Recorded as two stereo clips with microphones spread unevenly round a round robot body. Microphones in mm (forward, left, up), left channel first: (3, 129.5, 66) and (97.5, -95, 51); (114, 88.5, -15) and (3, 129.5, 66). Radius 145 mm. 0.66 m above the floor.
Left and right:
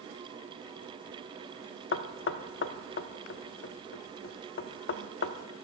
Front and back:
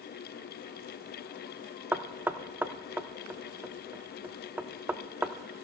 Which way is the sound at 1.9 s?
70° left.